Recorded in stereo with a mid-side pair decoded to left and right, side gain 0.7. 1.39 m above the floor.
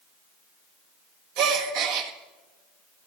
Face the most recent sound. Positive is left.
turn(degrees=-70)